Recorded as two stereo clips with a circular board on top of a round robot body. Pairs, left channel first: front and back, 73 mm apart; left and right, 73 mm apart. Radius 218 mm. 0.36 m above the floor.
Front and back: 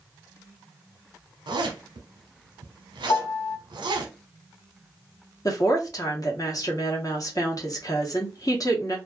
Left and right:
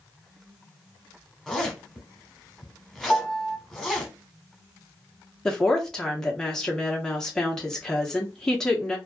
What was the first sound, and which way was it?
A zipper, straight behind.